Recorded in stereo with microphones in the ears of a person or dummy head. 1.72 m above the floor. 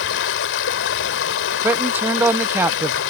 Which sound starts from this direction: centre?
A man speaking, at 1.6 s.